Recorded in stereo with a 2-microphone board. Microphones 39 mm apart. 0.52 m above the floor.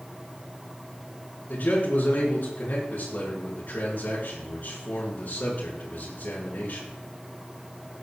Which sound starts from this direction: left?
A man speaking, at 1.5 s.